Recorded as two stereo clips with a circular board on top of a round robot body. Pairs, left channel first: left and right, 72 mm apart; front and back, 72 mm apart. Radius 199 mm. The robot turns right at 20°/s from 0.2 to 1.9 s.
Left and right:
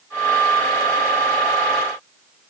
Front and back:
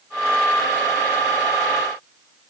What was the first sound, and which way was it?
Only background noise.